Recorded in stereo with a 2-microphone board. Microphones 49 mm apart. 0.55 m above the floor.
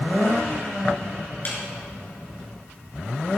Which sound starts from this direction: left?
A snare drum, at 1.4 s.